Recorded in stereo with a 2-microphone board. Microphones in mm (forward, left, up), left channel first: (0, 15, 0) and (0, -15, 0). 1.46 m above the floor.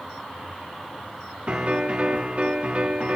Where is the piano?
40° right (ahead or behind), 1.1 m.